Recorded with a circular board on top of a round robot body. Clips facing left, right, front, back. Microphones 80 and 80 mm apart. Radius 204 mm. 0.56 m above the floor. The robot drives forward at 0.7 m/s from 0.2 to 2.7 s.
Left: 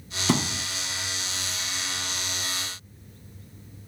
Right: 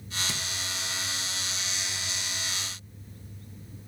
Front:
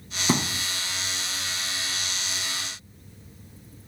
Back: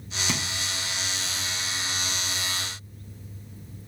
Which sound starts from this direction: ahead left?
A thud, at 0.3 s.